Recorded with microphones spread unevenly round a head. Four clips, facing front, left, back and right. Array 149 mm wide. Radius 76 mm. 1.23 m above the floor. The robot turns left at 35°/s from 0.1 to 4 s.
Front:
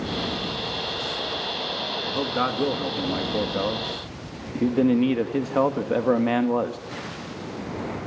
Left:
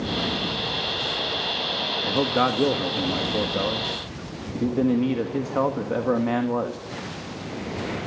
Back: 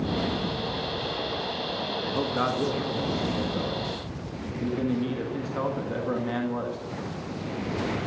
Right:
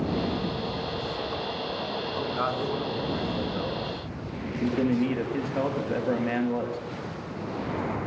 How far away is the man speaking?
About 1.8 m.